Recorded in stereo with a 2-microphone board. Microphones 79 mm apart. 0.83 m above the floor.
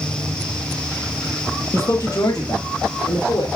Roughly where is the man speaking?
Left.